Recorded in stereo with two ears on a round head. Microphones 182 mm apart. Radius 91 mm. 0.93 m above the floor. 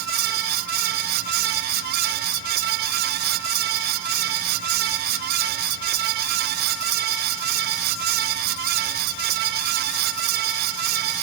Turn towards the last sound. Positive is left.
No sound to turn to.